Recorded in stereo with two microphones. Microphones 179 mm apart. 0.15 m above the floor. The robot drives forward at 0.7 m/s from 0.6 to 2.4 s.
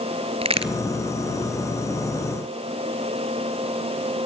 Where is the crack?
35° right (ahead or behind), 1.5 m; by 0.7 s 30° right (ahead or behind), 1.5 m.